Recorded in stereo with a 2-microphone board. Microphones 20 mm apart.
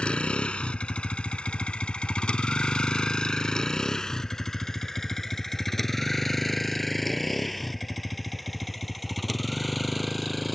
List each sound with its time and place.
0.0 s a vehicle: 65° left (ahead or behind); by 10.6 s 5° left (ahead or behind)